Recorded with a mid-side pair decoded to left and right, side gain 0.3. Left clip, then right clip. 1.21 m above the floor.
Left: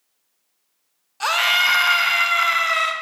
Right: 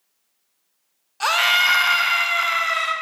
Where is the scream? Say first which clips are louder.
Even; 15° right, 0.7 m; by 2.9 s 35° left, 1.1 m.